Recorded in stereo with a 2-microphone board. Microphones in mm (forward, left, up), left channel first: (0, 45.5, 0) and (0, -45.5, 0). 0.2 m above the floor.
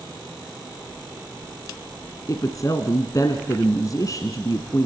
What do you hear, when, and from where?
2.3 s a woman speaking: 40° left (ahead or behind), 1.7 m